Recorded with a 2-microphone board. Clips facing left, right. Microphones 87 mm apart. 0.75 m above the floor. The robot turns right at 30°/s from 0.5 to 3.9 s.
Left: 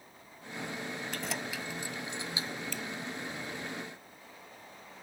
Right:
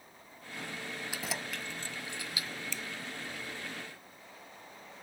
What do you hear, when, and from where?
1.1 s keys jangling: 10° right (ahead or behind); by 2.5 s 35° left (ahead or behind)
2.7 s a finger snap: 55° left (ahead or behind)